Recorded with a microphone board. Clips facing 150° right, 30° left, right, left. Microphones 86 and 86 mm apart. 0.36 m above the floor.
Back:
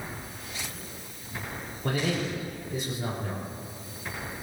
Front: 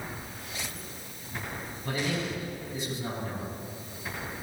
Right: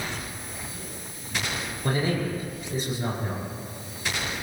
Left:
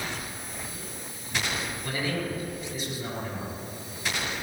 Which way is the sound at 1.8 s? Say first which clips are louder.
Back 3 dB, right 6 dB; 135° right.